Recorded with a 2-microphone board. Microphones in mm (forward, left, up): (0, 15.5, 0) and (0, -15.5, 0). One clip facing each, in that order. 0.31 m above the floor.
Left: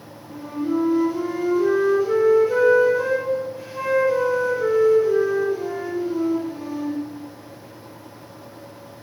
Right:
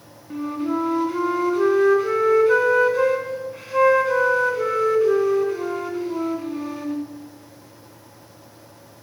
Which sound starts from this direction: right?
A flute, at 0.3 s.